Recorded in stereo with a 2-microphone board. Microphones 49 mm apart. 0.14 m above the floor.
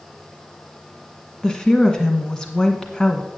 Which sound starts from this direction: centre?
A woman speaking, at 1.4 s.